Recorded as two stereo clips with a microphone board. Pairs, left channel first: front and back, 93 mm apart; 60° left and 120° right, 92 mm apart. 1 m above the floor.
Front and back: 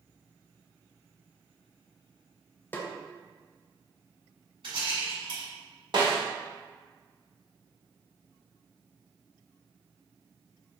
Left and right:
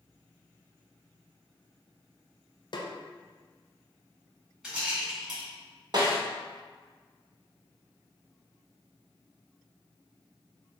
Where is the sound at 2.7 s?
65° left, 0.6 m.